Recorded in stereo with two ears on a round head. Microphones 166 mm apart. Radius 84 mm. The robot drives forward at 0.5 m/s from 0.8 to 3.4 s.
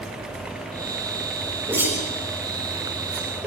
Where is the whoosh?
10° right (ahead or behind), 6 m; by 3.5 s 15° right (ahead or behind), 5 m.